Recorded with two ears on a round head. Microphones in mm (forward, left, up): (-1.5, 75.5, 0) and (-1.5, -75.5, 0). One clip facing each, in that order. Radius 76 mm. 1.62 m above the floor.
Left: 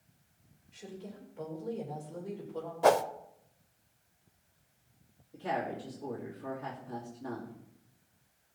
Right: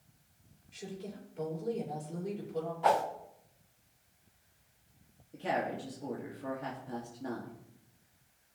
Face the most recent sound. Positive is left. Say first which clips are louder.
# right 1 dB
turn(degrees=-30)  # may be behind; listen again after turning